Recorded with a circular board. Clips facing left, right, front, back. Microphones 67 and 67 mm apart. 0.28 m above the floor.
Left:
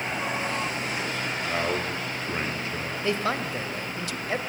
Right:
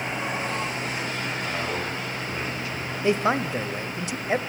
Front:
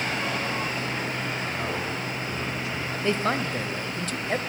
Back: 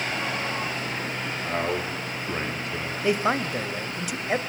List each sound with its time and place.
1.4 s a man speaking: 150° left, 6.5 m; by 2.9 s 140° left, 6 m
3.0 s a man speaking: 120° right, 0.9 m